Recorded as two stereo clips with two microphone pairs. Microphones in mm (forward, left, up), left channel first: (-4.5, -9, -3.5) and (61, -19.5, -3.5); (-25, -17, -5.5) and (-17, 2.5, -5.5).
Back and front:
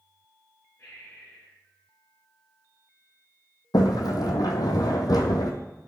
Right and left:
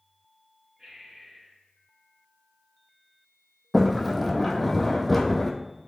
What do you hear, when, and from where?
0.8 s breathing: 130° left, 4.5 m
3.7 s a sliding door: 165° left, 1.4 m